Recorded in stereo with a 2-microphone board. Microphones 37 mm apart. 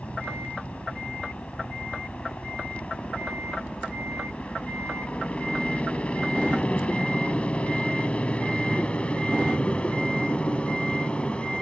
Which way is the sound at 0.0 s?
35° left (ahead or behind).